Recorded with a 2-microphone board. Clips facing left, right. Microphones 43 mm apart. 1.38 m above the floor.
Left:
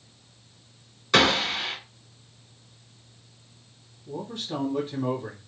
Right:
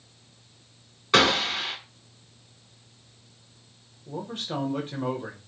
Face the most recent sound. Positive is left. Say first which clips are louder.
# even
turn(degrees=-50)  # may be behind; listen again after turning